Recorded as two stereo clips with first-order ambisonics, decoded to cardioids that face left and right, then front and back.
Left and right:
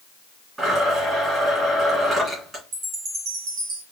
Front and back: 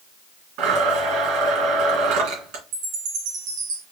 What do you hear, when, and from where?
0.6 s a blender: 165° right, 2.5 m
2.7 s a chime: 140° right, 1.7 m